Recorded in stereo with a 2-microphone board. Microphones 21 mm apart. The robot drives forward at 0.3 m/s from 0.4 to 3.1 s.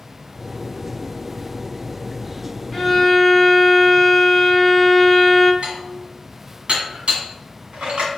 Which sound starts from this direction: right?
Dishes clattering, at 5.6 s.